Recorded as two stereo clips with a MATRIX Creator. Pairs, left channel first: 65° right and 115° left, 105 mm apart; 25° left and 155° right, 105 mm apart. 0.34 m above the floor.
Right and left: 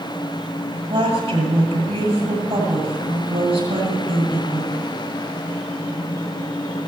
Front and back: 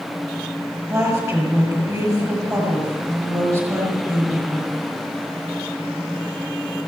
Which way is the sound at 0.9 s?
145° left.